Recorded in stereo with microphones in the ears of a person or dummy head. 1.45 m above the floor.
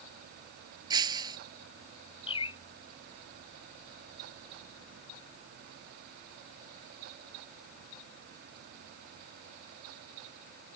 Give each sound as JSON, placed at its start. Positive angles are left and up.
{"t": 0.9, "sound": "breaking glass", "side_deg": -20}
{"t": 2.3, "sound": "a bird", "side_deg": 30}